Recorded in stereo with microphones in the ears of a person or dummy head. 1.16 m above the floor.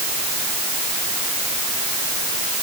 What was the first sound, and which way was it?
Only background noise.